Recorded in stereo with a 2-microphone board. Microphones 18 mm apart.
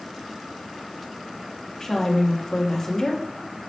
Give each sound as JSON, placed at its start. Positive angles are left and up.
{"t": 1.8, "sound": "a woman speaking", "side_deg": 25, "distance_m": 1.7}